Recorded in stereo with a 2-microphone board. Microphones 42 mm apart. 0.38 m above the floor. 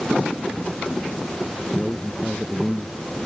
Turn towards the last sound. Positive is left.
turn(degrees=10)  # may be behind; listen again after turning